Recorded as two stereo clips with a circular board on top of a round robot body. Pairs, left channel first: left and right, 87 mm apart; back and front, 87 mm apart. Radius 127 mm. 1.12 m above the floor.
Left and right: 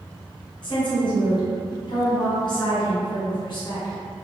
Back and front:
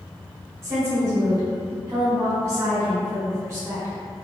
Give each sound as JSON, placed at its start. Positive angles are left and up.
{"t": 0.6, "sound": "a woman speaking", "azimuth_deg": 60, "distance_m": 1.1}